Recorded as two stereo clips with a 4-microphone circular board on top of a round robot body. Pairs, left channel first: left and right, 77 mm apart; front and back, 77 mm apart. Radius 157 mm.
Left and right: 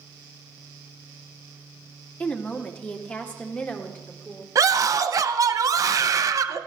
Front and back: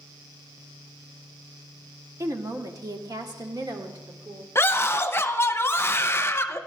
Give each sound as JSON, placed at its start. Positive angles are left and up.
{"t": 2.2, "sound": "a woman speaking", "azimuth_deg": 155, "distance_m": 1.2}
{"t": 4.5, "sound": "a scream", "azimuth_deg": -55, "distance_m": 0.9}